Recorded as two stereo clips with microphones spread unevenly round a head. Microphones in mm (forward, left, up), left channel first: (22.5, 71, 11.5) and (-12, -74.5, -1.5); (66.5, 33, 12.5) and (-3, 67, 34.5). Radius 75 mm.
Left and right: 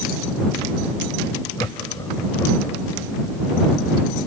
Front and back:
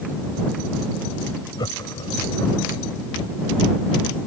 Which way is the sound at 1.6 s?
10° left.